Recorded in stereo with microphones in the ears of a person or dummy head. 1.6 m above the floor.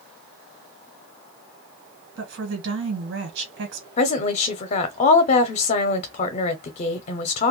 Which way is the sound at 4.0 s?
30° left (ahead or behind).